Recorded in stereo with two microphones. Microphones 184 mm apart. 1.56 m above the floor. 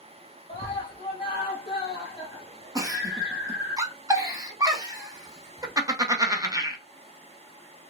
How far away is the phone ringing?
No phone ringing in this recording.